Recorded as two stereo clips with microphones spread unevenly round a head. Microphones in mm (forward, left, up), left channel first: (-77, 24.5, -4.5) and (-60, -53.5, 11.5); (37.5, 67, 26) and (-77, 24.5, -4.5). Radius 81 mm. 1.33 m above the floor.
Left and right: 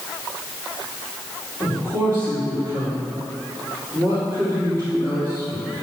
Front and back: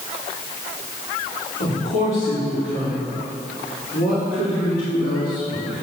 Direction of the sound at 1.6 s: 20° left.